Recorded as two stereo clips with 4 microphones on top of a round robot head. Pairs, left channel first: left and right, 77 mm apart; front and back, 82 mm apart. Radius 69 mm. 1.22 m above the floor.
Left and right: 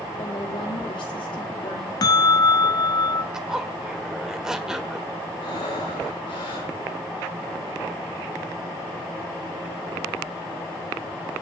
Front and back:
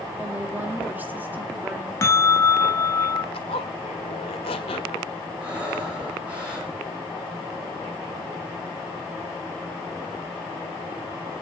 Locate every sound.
0.2 s a woman speaking: 115° left, 4 m
2.0 s a bell: 55° left, 0.9 m
3.3 s a zipper: 10° right, 1.5 m
5.4 s breathing: 105° left, 9 m